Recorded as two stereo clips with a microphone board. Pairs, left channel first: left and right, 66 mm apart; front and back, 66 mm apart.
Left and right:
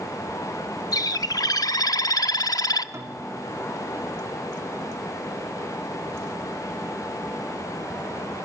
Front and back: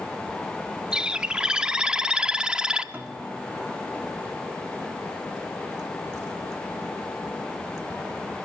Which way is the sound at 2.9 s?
120° right.